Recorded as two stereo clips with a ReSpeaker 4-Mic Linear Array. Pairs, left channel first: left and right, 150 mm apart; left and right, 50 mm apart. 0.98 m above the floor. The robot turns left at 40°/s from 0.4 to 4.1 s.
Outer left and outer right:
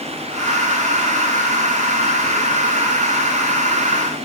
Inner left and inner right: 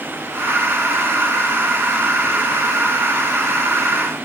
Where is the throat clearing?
I don't hear throat clearing.